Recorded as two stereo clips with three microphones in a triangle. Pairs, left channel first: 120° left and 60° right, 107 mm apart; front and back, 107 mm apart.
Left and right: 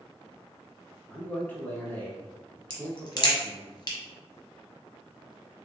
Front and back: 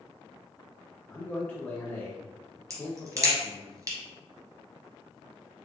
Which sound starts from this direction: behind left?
A crack, at 2.7 s.